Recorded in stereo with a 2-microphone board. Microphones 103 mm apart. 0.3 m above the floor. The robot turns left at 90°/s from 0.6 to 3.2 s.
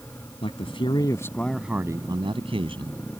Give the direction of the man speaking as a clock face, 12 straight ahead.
9 o'clock.